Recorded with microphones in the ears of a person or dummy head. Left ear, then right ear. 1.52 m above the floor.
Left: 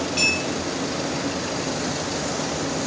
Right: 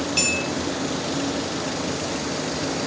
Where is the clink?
10° right (ahead or behind), 0.7 m.